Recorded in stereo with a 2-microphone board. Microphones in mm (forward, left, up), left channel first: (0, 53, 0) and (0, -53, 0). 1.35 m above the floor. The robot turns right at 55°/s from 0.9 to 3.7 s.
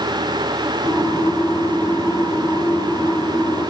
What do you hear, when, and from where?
Only background noise.